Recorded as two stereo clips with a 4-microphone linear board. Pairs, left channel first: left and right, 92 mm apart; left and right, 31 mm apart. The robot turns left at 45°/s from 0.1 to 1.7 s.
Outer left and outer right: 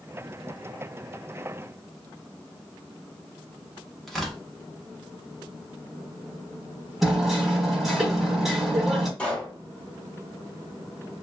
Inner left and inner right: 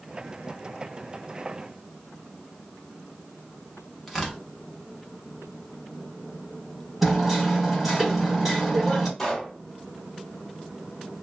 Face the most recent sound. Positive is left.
turn(degrees=15)  # may be behind; listen again after turning